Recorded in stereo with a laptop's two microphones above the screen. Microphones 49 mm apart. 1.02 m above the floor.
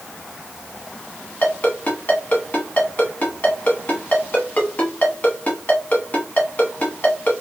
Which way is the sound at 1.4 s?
35° left (ahead or behind).